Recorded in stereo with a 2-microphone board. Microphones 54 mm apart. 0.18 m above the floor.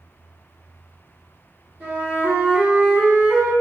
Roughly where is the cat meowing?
I don't hear a cat meowing.